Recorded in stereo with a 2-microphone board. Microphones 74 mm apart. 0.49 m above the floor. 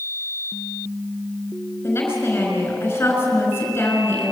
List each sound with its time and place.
1.8 s a woman speaking: 30° left (ahead or behind), 5.5 m